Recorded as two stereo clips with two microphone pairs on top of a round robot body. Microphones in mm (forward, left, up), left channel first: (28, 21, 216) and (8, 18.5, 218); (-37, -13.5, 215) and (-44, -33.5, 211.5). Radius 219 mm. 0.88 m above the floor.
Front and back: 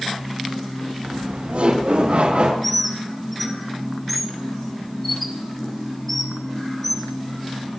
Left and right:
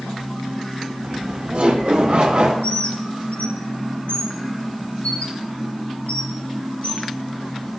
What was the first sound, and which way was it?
Laughter, 145° right.